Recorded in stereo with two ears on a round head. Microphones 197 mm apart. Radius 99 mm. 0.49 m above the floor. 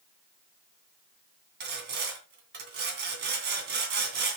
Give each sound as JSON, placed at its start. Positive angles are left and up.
{"t": 1.6, "sound": "sawing", "side_deg": -50, "distance_m": 2.5}